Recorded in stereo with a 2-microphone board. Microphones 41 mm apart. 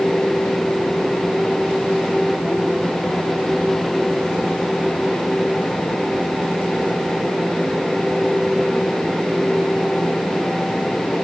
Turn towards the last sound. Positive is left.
No sound to turn to.